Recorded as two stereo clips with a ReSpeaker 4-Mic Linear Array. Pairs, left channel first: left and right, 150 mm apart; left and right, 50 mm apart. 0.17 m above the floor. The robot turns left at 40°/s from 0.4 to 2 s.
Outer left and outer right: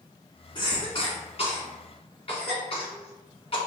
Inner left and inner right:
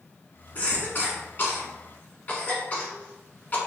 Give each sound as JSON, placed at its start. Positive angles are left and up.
{"t": 0.6, "sound": "a cough", "side_deg": 30, "distance_m": 1.3}